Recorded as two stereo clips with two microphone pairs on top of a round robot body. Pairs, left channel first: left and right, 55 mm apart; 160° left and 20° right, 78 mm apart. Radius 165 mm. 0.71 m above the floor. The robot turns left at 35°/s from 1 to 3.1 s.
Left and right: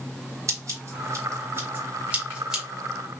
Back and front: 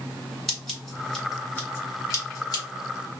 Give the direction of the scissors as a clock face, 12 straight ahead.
4 o'clock.